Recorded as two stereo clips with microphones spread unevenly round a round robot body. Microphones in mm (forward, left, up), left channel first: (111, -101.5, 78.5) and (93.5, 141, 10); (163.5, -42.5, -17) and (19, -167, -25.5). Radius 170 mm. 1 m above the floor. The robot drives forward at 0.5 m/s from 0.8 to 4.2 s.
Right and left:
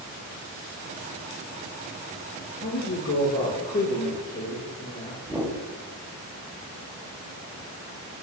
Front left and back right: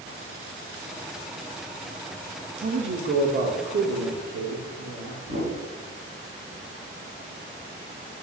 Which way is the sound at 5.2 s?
Straight behind.